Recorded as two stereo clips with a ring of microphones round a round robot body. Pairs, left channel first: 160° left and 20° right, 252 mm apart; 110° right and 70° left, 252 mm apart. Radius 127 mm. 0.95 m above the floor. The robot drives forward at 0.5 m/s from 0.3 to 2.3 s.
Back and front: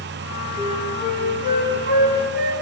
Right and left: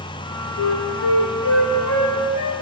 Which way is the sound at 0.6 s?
140° right.